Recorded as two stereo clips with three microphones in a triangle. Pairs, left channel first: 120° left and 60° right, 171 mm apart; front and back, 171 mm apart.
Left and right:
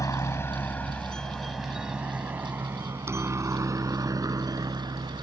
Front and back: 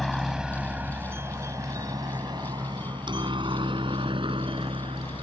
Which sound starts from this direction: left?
A helicopter, at 0.0 s.